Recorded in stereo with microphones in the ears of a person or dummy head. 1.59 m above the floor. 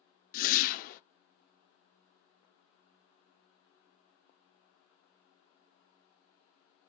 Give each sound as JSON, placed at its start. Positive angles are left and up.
{"t": 0.3, "sound": "a whoosh", "side_deg": 60, "distance_m": 0.6}